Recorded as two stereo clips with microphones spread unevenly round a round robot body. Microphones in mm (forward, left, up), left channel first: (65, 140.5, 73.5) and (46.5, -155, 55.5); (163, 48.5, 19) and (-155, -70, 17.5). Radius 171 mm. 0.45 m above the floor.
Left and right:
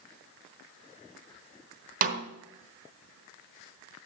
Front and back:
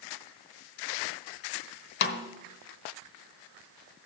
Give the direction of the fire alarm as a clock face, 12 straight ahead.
I don't hear a fire alarm.